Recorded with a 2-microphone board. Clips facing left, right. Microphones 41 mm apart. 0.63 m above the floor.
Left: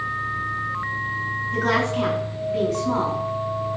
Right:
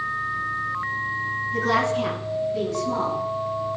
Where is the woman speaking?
75° left (ahead or behind), 7 m; by 3.7 s 70° left (ahead or behind), 5.5 m.